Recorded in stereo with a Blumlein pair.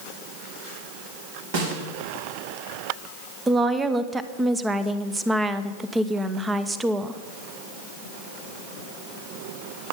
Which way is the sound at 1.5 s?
55° right.